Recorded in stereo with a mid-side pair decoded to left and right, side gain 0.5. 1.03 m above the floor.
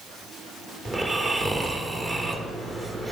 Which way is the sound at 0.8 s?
25° right.